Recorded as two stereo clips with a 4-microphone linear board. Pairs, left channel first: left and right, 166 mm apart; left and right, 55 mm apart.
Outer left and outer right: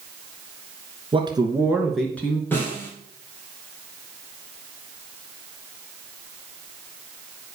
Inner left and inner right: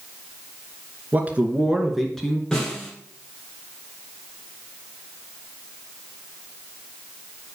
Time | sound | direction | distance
1.1 | a man speaking | 30° right (ahead or behind) | 2 m
2.5 | a snare drum | 10° left (ahead or behind) | 5 m